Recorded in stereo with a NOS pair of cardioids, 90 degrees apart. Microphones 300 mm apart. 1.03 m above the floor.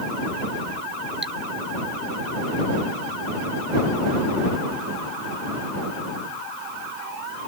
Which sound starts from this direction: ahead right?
Cutlery clinking, at 1.2 s.